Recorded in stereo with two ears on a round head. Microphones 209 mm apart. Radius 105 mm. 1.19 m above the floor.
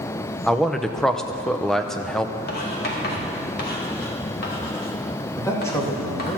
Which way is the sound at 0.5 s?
Centre (ahead or behind).